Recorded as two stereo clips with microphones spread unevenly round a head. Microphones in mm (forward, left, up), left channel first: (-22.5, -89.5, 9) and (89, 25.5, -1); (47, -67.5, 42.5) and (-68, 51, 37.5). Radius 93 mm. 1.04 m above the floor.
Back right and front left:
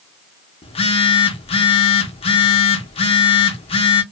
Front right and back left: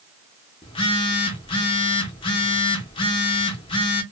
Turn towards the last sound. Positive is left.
turn(degrees=-95)